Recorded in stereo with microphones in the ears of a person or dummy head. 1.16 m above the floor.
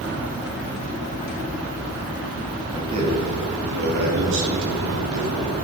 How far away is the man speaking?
About 2 m.